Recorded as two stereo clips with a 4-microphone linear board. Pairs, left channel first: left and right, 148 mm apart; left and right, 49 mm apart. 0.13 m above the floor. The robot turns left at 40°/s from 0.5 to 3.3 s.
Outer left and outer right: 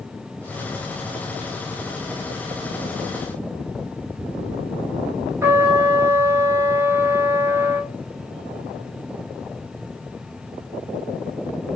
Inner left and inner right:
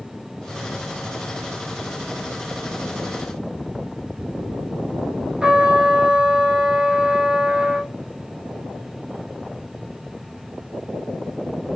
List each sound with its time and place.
5.4 s a trumpet: 20° right (ahead or behind), 0.7 m